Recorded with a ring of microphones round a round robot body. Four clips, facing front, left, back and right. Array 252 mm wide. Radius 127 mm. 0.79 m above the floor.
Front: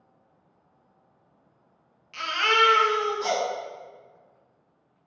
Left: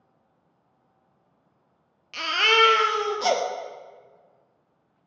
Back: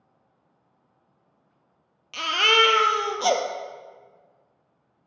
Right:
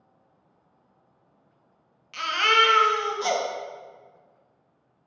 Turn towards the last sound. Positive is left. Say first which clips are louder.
# even, back 1 dB
turn(degrees=145)